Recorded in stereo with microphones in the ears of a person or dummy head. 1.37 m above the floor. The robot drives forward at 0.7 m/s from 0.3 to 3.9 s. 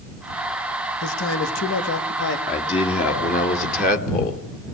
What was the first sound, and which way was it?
A man speaking, 80° left.